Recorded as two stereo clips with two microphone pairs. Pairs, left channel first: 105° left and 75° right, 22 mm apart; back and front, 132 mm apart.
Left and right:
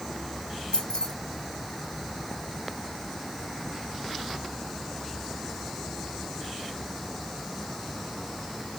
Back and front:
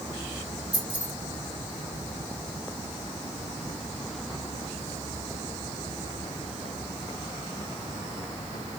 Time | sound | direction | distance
0.7 | keys jangling | 75° left | 1.3 m